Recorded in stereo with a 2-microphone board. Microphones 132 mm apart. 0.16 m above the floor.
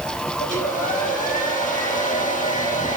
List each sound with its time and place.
0.4 s a hair dryer: 75° left (ahead or behind), 5.5 m